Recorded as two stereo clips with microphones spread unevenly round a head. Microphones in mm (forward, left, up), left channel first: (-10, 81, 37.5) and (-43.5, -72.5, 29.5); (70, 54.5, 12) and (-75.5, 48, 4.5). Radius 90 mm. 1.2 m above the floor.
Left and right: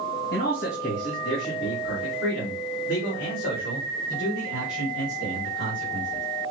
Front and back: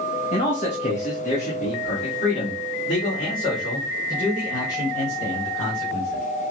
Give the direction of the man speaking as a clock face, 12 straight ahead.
10 o'clock.